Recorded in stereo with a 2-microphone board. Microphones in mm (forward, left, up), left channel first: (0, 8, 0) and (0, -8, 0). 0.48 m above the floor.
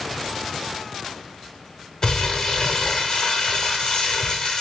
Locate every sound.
2.0 s crumpling: 40° left (ahead or behind), 0.8 m